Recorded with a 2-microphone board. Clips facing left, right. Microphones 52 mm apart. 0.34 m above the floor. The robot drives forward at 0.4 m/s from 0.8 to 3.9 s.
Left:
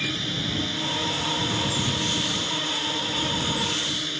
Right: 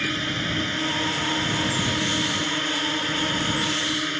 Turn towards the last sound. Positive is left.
turn(degrees=-35)  # may be behind; listen again after turning